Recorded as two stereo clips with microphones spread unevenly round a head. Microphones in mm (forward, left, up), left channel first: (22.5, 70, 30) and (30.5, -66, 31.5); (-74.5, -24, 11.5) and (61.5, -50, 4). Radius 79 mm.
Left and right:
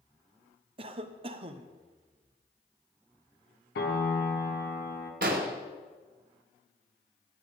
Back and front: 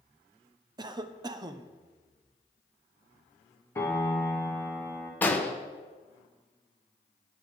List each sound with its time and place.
0.8 s a cough: 60° right, 0.6 m
3.8 s a piano: 95° left, 1.2 m
5.2 s an explosion: 115° right, 1.1 m